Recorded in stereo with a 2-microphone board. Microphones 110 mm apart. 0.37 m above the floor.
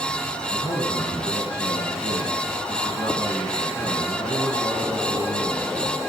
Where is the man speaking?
50° left (ahead or behind), 3 m.